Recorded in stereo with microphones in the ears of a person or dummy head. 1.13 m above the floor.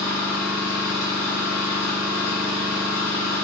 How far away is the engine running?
About 1.5 m.